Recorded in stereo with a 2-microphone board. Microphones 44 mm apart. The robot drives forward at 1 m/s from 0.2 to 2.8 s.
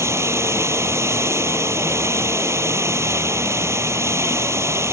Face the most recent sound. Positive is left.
turn(degrees=-85)